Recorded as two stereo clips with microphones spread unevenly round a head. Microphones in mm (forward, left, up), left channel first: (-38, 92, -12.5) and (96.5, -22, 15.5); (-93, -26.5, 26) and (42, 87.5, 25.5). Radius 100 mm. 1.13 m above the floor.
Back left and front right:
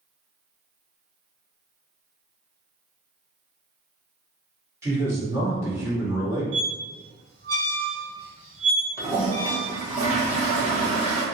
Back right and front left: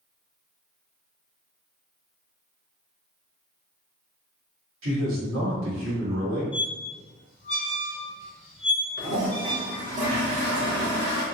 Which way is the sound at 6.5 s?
70° right.